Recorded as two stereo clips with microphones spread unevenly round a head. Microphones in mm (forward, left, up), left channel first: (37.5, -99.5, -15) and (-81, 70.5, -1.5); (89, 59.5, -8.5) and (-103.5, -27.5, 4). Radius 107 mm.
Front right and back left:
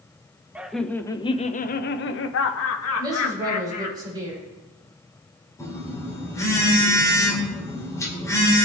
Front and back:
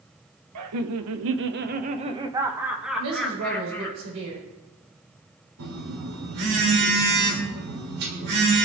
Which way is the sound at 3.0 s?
165° right.